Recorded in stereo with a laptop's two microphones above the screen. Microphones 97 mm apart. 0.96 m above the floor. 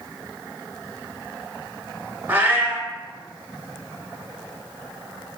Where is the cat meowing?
20° right (ahead or behind), 0.7 m.